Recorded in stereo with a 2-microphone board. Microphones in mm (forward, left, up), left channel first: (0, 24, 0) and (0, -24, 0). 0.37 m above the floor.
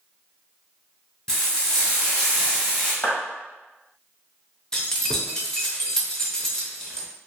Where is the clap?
35° left (ahead or behind), 1.6 m.